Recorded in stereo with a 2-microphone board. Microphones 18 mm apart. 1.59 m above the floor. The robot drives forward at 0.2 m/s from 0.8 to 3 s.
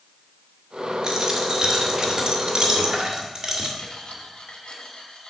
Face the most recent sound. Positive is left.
turn(degrees=70)  # may be behind; listen again after turning